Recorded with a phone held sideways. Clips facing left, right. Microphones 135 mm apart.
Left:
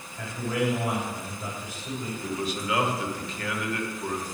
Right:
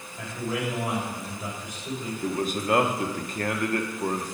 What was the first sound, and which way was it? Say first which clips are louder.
A man speaking: left 2 dB; 15° right (ahead or behind).